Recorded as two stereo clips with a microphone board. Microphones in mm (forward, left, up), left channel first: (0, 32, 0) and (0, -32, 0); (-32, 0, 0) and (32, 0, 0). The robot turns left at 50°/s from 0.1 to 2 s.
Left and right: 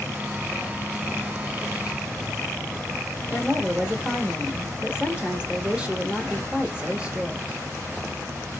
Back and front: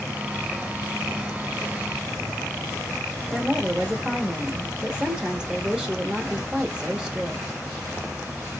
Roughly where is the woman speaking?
Ahead right.